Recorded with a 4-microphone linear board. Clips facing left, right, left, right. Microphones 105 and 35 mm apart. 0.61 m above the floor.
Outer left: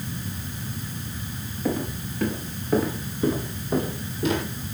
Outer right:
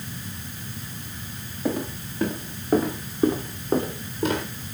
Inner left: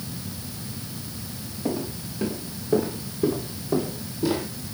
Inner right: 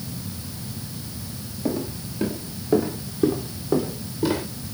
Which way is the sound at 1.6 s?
20° right (ahead or behind).